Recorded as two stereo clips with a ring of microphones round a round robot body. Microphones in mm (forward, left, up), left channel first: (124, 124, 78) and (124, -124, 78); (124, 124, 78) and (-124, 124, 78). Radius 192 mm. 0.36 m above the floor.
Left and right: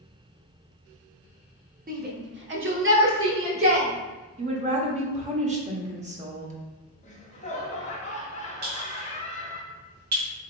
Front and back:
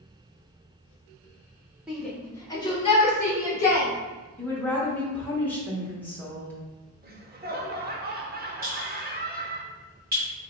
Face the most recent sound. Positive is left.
turn(degrees=-120)